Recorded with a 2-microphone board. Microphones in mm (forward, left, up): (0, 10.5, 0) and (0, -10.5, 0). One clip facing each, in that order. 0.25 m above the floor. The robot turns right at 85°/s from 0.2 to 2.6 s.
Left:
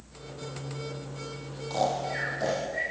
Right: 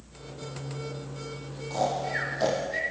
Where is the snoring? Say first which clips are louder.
Even; 30° left (ahead or behind), 4.5 m; by 2.8 s 45° right (ahead or behind), 4.5 m.